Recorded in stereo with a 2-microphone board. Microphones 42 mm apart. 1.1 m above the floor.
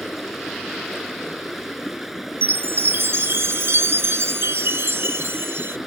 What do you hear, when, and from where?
0.0 s running water: 5° right (ahead or behind)
2.4 s a chime: 70° right (ahead or behind)